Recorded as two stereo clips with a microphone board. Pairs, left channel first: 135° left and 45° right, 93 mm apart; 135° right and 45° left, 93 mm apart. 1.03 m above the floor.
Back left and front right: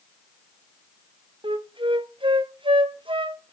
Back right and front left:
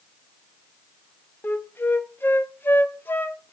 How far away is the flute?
About 0.7 m.